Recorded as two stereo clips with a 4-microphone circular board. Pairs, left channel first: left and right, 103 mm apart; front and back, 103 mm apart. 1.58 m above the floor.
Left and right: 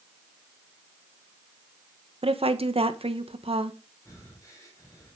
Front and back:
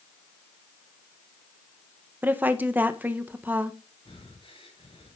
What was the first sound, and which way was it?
A woman speaking, 110° right.